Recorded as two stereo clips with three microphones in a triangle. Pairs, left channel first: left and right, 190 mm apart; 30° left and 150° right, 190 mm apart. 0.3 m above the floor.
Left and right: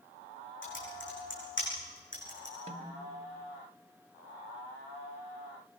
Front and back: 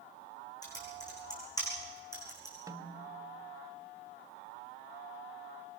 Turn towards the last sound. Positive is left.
turn(degrees=-90)